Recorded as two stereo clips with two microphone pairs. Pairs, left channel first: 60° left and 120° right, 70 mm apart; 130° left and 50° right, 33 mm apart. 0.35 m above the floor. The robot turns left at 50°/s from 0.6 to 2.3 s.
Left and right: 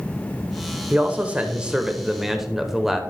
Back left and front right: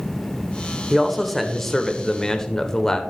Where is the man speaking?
130° right, 0.8 m; by 3.0 s 160° left, 0.8 m.